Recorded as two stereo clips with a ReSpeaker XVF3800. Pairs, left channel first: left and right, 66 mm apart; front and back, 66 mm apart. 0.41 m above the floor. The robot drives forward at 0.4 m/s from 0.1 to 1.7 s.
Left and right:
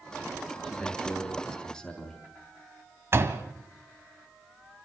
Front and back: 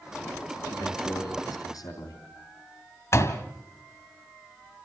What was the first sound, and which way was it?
A man speaking, 5° left.